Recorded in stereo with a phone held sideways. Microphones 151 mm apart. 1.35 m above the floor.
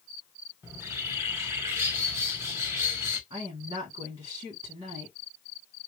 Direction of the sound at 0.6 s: 15° right (ahead or behind).